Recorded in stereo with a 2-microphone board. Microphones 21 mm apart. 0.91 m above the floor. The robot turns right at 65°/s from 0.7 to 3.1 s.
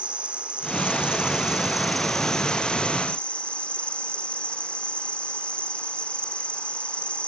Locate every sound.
0.0 s an insect: 85° right, 1.3 m; by 7.3 s 70° left, 1.3 m